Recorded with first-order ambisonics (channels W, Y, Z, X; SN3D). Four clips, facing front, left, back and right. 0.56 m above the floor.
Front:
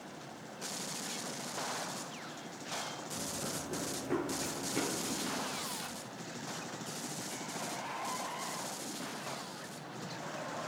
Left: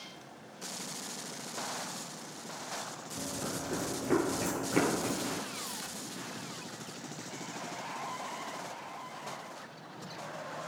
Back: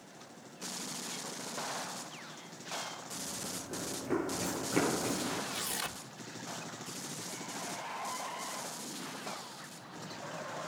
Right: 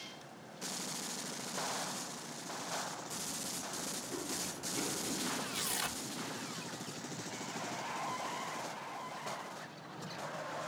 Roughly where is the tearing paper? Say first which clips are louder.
Right 3 dB, back 2 dB; behind right.